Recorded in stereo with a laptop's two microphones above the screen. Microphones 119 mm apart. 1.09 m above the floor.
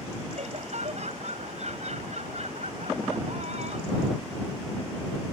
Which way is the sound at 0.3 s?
70° right (ahead or behind).